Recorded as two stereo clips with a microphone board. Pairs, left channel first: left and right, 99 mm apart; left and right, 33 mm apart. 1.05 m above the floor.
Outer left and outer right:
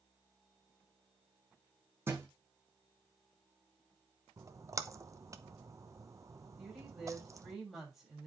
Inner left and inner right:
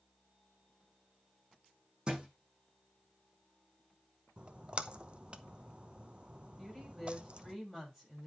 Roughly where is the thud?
Right.